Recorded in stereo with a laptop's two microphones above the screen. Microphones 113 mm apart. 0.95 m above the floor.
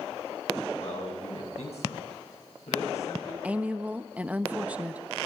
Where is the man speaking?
80° left, 7.5 m.